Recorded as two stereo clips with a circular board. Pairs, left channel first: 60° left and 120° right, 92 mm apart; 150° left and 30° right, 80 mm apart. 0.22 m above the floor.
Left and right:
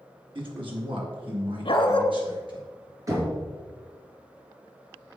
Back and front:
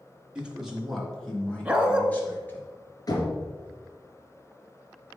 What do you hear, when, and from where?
0.3 s a man speaking: 105° right, 2.5 m; by 2.6 s 145° right, 3.5 m
1.6 s a dog barking: 45° left, 1.0 m
3.1 s knocking: 175° right, 2.5 m